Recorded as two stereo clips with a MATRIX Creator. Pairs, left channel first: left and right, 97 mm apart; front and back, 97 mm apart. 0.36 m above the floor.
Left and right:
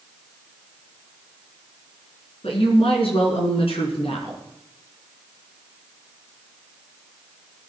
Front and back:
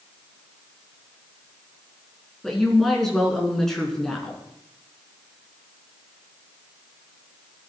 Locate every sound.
2.4 s a woman speaking: 85° left, 3.5 m